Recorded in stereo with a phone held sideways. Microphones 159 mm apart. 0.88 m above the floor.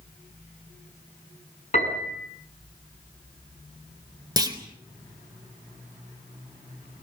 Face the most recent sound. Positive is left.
turn(degrees=-25)  # may be behind; listen again after turning